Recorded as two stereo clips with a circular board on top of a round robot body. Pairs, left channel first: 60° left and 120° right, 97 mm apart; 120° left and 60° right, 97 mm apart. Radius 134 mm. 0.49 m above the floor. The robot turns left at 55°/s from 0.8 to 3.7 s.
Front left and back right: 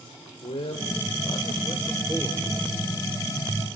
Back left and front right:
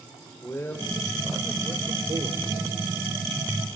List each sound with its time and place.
0.4 s a man speaking: 55° left, 3 m; by 2.5 s 35° right, 3 m